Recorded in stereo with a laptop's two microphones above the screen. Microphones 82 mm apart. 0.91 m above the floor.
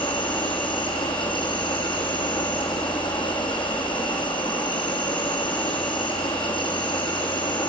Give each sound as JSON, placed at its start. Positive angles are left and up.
{"t": 0.0, "sound": "an insect", "side_deg": 80, "distance_m": 5.5}